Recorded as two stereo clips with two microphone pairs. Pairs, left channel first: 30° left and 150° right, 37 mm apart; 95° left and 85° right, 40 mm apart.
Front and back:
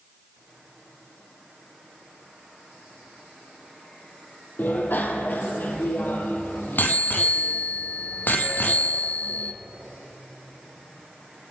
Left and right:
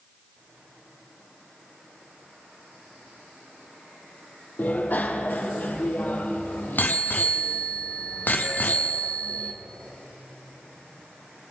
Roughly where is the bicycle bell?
Ahead left.